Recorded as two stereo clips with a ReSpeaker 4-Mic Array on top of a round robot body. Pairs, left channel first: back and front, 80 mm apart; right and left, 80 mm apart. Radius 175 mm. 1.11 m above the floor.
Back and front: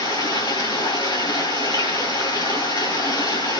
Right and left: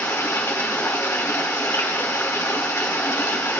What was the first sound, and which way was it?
Running water, 150° right.